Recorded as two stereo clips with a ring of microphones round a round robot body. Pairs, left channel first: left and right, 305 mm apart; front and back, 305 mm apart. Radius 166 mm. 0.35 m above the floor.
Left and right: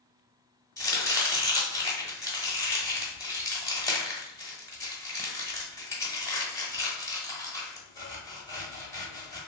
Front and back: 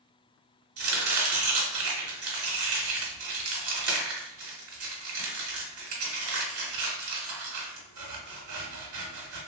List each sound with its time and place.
0.8 s chopping: 165° left, 1.0 m